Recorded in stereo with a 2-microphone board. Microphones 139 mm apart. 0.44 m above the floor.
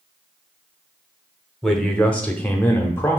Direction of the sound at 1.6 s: 5° left (ahead or behind).